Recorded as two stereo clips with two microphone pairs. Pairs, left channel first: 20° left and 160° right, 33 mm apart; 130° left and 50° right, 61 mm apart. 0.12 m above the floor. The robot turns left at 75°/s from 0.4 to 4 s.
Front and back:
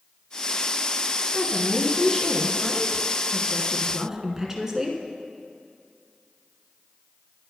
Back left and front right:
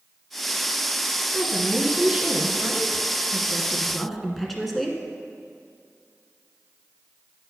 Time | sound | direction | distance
1.3 | a woman speaking | 65° left | 1.1 m